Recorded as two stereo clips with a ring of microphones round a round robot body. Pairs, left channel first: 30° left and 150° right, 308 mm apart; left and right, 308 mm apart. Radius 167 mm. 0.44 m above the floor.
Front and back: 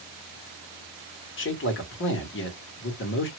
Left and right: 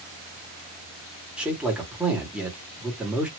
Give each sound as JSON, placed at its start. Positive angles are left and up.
{"t": 1.4, "sound": "a man speaking", "azimuth_deg": -5, "distance_m": 1.6}